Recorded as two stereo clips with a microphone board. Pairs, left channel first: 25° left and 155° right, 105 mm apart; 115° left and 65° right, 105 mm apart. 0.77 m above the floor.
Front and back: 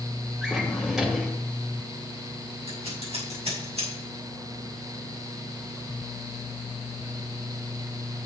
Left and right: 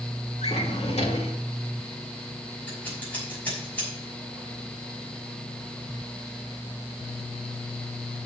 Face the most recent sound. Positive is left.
turn(degrees=-175)